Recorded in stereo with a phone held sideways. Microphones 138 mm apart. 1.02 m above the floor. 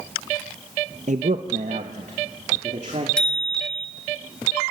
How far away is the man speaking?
About 0.8 m.